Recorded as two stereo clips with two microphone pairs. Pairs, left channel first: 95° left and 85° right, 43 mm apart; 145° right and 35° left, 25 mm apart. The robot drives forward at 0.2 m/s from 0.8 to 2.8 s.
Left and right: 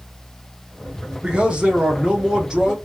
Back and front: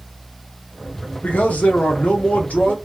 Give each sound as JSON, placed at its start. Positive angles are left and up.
{"t": 1.2, "sound": "a man speaking", "azimuth_deg": -155, "distance_m": 0.9}